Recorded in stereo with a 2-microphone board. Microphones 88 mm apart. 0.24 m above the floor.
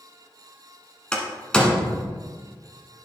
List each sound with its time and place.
1.1 s a door slam: 10° left (ahead or behind), 1.5 m